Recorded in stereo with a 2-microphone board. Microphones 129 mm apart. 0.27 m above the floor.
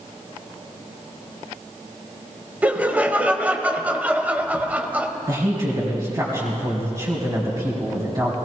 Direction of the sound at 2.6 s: 10° right (ahead or behind).